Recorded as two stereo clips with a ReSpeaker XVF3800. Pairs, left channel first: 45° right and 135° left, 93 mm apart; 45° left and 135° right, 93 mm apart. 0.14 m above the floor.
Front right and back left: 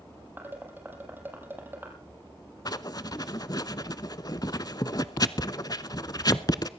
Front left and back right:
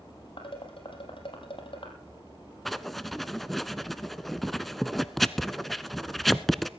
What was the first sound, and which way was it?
Dishes clattering, 65° left.